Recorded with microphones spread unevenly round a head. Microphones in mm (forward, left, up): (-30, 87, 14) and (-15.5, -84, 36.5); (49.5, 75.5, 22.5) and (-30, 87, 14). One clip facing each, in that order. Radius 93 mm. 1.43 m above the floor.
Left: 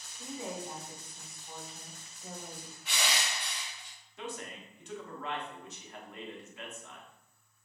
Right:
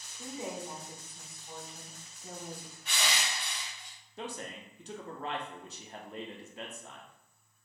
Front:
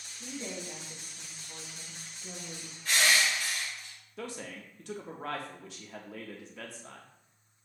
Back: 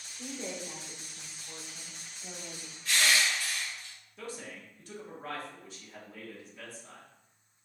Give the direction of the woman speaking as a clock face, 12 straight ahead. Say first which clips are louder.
Right 1 dB, back 1 dB; 5 o'clock.